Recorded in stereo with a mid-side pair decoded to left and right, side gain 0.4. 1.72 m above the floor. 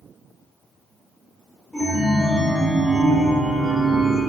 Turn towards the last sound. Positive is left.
turn(degrees=-5)